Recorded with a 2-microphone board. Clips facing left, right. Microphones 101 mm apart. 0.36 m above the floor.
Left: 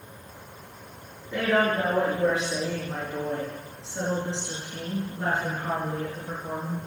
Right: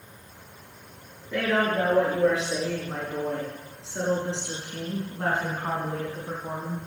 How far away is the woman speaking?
About 6 m.